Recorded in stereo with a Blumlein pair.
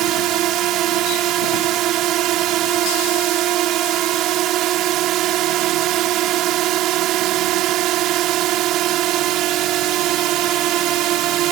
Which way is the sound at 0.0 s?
35° right.